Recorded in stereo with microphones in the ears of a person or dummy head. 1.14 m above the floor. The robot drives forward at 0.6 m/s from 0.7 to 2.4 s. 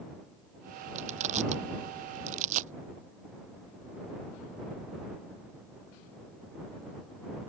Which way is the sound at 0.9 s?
45° right (ahead or behind).